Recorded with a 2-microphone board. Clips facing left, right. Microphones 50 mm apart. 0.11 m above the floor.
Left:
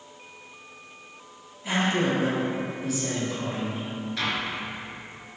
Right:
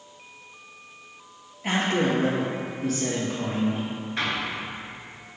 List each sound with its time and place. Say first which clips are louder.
1.6 s a man speaking: right 1 dB; 50° right (ahead or behind), 2.0 m
4.2 s an explosion: right 1 dB; 30° right (ahead or behind), 1.5 m